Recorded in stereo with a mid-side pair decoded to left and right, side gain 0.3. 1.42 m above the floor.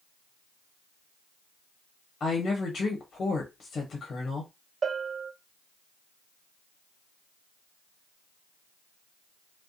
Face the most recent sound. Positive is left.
turn(degrees=-55)